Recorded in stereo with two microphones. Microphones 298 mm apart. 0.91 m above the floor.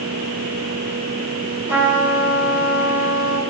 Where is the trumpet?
10° right (ahead or behind), 6 m.